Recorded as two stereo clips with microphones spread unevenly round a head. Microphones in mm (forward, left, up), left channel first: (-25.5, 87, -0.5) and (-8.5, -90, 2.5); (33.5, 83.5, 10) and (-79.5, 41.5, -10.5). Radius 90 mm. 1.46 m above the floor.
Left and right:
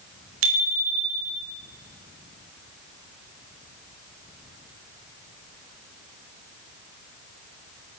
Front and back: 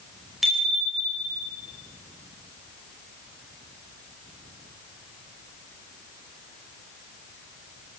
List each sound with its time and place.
0.4 s a bicycle bell: 70° right, 4.5 m; by 1.5 s 60° right, 3.5 m